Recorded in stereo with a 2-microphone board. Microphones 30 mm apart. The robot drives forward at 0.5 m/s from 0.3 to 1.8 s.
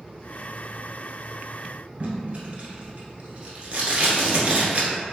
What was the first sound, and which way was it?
Tape being pulled, 40° right (ahead or behind).